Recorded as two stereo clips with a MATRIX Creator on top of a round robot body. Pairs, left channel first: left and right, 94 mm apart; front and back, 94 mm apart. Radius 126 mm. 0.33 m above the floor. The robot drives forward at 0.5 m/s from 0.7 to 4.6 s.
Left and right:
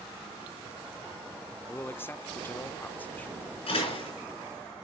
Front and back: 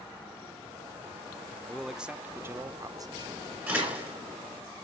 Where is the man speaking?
80° left, 0.9 m; by 3.4 s 160° left, 1.2 m.